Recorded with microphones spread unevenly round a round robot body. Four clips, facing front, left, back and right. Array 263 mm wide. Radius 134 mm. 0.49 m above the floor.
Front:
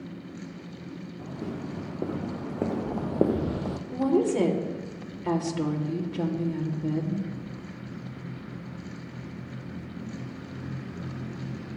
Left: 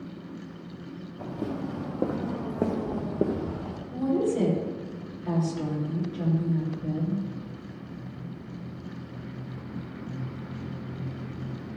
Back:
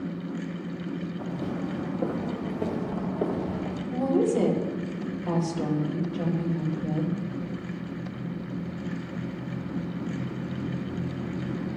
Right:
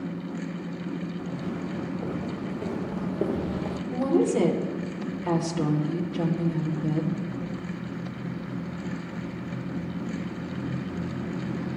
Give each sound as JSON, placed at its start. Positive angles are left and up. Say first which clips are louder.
{"t": 1.2, "sound": "footsteps", "louder": "even, back 1 dB", "azimuth_deg": 80, "distance_m": 2.5}
{"t": 3.9, "sound": "a woman speaking", "louder": "right 3 dB, even", "azimuth_deg": -30, "distance_m": 1.9}